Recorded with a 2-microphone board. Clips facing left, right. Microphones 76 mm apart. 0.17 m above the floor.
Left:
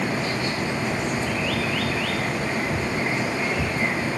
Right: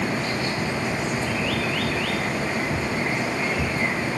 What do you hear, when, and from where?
Only background noise.